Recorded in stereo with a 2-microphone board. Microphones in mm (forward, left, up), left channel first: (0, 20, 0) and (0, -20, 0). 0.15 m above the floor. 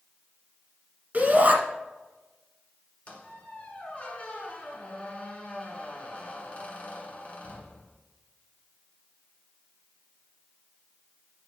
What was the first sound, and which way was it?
A shout, 40° right (ahead or behind).